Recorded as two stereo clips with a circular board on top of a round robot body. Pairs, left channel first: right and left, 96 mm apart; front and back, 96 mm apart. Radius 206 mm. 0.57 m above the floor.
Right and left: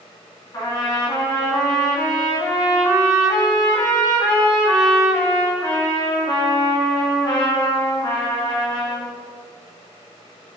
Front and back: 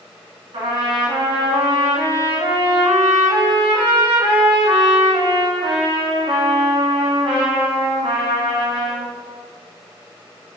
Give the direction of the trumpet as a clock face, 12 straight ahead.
5 o'clock.